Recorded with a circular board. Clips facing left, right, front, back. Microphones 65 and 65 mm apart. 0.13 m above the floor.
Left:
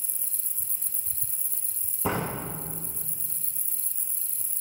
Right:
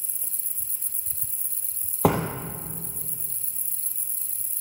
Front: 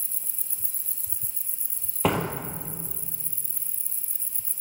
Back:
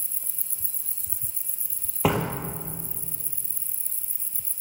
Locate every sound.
2.0 s a door slam: 95° right, 2.5 m